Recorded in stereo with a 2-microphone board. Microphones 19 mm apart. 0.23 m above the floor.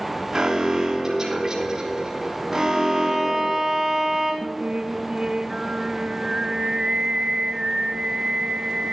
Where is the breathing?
I don't hear breathing.